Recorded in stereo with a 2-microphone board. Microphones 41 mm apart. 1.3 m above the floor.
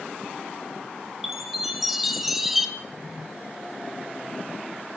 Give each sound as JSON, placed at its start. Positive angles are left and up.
{"t": 1.2, "sound": "a chime", "side_deg": 0, "distance_m": 2.5}
{"t": 2.8, "sound": "a drawer", "side_deg": -75, "distance_m": 3.0}